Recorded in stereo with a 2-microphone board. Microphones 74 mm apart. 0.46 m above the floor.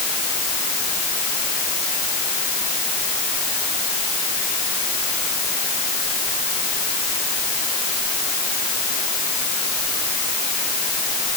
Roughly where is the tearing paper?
No tearing paper in this recording.